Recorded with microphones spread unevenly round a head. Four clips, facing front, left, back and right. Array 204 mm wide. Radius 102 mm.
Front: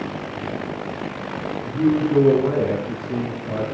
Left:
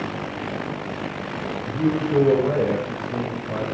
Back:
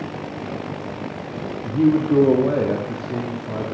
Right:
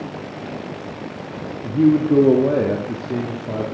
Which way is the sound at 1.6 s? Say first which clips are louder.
Right 8 dB, back 2 dB; 100° right.